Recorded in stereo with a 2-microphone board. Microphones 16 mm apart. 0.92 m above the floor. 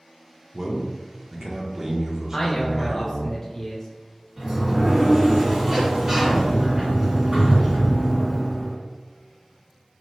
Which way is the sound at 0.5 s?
35° right (ahead or behind).